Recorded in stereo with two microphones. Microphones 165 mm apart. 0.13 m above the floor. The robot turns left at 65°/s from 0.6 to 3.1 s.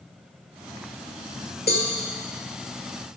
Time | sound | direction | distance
1.7 | a cowbell | 70° left (ahead or behind) | 1.4 m